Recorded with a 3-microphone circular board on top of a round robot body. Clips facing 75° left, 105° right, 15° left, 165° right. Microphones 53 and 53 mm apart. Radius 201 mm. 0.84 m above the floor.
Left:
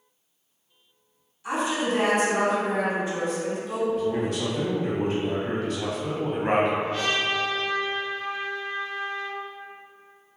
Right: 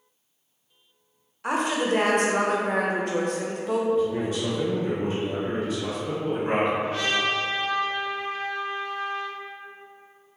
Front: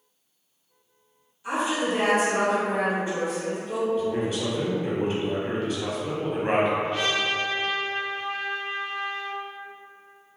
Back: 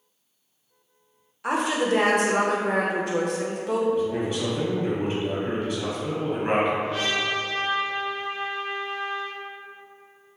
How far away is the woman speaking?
About 0.6 m.